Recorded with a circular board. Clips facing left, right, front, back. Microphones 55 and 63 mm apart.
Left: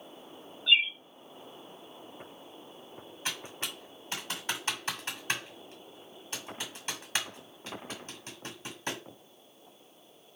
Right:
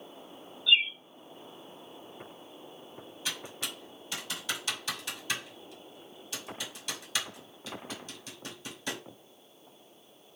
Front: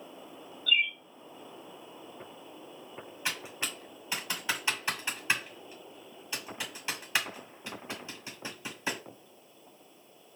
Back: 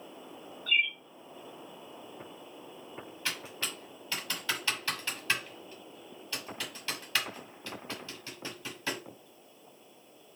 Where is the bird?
135° left, 2.5 m.